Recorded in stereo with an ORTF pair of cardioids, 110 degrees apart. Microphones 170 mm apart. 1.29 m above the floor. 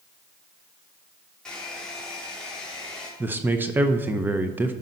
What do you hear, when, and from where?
1.4 s a hair dryer: 5° left, 3 m
3.2 s a man speaking: 10° right, 0.7 m